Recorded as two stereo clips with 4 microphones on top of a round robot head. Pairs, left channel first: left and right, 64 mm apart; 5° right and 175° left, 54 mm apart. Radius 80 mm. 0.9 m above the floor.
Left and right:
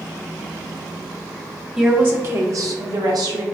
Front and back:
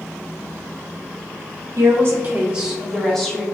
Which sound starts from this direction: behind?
A woman speaking, at 1.8 s.